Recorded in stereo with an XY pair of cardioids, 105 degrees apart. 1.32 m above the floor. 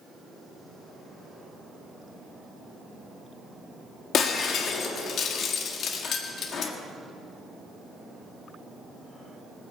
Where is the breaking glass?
65° left, 1.6 m.